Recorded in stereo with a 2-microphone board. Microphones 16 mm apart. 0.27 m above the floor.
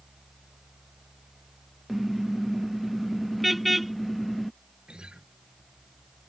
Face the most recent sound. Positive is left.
turn(degrees=-75)  # may be behind; listen again after turning